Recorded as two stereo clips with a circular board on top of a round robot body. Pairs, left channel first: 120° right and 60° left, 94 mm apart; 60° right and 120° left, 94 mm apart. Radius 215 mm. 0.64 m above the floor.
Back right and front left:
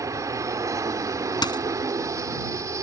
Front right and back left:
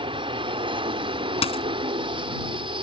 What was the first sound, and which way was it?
An aircraft, 110° left.